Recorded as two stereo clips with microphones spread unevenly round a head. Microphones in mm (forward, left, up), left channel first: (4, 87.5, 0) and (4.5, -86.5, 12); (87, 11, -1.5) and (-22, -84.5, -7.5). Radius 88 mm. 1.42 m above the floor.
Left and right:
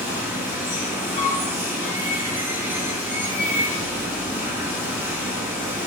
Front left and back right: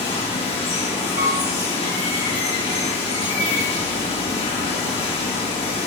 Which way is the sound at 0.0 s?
10° right.